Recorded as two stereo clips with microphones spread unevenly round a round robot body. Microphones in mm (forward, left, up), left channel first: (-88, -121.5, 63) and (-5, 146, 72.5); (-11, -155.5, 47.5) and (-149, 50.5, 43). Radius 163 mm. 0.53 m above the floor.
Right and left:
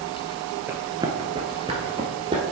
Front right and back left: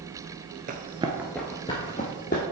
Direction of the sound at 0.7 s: 145° left.